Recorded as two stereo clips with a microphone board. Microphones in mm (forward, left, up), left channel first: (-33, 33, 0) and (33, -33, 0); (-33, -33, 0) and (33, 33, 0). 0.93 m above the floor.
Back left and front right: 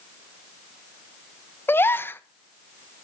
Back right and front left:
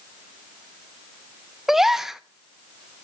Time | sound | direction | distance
1.7 | a gasp | 125° left | 0.6 m